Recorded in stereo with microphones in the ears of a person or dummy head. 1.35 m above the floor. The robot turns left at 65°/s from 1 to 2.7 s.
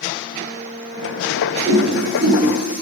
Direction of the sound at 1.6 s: 45° right (ahead or behind).